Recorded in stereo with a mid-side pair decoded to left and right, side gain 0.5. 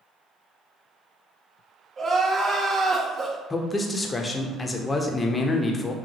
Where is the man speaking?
25° left, 0.7 m.